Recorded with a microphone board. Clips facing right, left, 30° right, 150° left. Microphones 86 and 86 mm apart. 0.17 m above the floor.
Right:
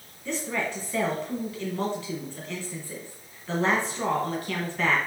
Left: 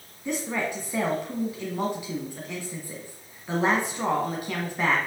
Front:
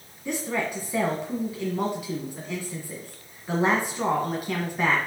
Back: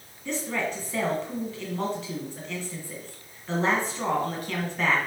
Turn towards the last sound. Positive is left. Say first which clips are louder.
# left 1 dB, front 1 dB
turn(degrees=35)